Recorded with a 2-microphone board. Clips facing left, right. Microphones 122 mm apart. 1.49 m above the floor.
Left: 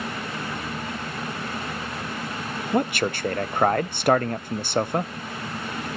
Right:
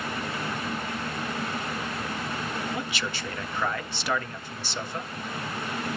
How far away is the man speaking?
About 0.5 m.